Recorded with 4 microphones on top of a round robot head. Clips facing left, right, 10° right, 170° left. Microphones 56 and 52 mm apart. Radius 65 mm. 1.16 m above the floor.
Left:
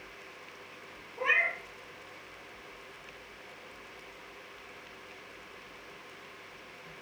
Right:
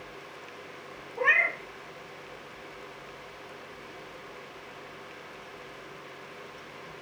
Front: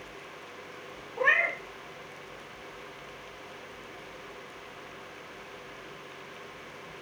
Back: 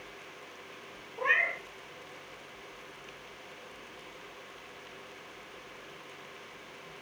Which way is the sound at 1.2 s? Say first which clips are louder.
Right 4 dB, front 3 dB; 35° right.